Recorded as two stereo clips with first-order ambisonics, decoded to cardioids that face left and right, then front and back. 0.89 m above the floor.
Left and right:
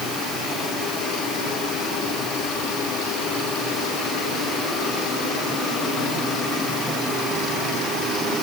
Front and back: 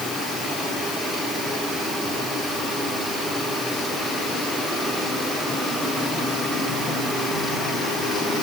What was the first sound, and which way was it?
Only background noise.